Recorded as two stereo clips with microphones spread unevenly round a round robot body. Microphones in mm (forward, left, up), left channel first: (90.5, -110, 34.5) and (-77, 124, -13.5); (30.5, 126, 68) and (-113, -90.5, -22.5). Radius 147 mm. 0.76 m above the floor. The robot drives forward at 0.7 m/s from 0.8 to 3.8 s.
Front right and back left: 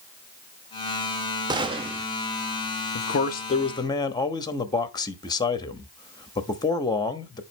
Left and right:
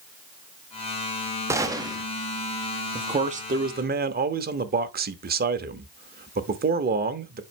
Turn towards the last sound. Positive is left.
turn(degrees=-135)